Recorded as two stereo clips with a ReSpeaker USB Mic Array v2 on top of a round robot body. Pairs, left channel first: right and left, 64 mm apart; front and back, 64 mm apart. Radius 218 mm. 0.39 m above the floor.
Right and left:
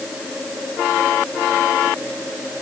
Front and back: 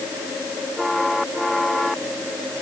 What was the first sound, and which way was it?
Only background noise.